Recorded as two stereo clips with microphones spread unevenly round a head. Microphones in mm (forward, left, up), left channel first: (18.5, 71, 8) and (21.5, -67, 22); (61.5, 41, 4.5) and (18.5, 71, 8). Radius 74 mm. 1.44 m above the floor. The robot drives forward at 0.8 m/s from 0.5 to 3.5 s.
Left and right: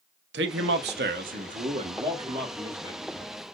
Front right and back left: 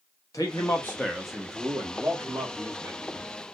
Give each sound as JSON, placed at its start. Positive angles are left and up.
{"t": 0.3, "sound": "a man speaking", "azimuth_deg": -95, "distance_m": 1.0}